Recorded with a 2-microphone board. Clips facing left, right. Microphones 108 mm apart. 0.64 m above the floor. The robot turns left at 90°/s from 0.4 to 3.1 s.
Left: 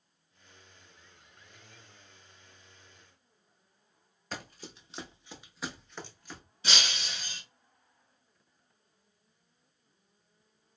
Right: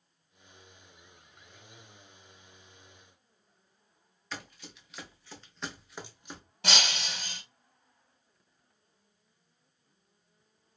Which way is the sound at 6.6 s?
65° right (ahead or behind).